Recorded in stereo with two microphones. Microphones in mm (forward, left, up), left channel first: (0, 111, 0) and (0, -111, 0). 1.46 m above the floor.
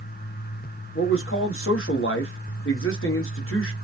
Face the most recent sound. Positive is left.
turn(degrees=70)  # may be behind; listen again after turning